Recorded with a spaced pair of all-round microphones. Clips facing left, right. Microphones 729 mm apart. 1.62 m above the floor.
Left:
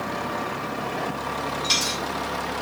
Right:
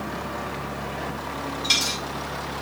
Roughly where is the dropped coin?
Centre.